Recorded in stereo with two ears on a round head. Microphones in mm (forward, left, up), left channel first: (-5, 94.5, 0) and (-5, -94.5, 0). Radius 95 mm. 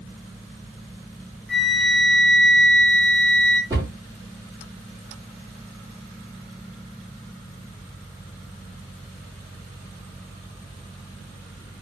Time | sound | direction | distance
1.5 | a flute | centre (ahead or behind) | 0.8 m
3.7 | a cupboard door | 15° right (ahead or behind) | 1.8 m